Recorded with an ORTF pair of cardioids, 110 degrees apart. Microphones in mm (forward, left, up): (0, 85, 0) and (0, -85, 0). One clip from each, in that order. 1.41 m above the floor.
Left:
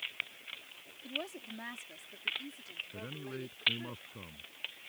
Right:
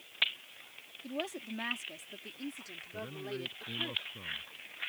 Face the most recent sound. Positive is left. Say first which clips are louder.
# right 3 dB
turn(degrees=15)